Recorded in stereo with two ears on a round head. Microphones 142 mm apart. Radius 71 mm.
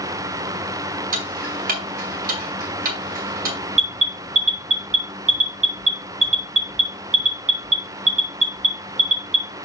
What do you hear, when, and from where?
1.1 s ticking: 60° right (ahead or behind), 2 m
3.8 s an alarm: 45° right (ahead or behind), 1.9 m